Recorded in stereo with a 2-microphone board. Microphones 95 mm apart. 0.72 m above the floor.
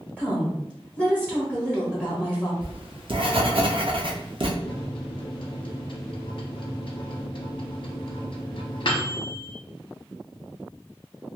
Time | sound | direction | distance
0.2 | a woman speaking | 20° right (ahead or behind) | 1.2 m
2.6 | writing | 60° right (ahead or behind) | 0.5 m
4.6 | a microwave | 60° left (ahead or behind) | 0.7 m